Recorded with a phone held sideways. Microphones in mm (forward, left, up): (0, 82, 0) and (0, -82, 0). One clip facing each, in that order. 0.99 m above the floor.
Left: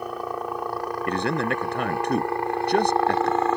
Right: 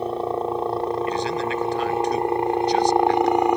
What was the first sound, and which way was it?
A helicopter, 30° right (ahead or behind).